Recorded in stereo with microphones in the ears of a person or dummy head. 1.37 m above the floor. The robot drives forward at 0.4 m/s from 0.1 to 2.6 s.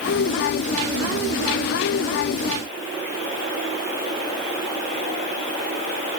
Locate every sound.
Only background noise.